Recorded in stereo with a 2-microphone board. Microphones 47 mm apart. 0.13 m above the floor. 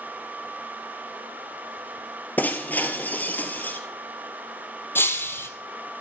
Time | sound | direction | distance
2.4 | breaking glass | 40° left (ahead or behind) | 1.7 m
5.0 | breaking glass | 60° left (ahead or behind) | 1.5 m